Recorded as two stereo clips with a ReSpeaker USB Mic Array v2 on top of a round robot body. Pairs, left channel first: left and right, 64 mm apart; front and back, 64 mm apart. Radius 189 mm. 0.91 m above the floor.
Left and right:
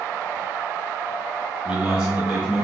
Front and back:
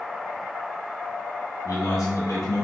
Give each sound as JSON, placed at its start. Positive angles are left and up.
{"t": 1.6, "sound": "a man speaking", "azimuth_deg": -15, "distance_m": 1.7}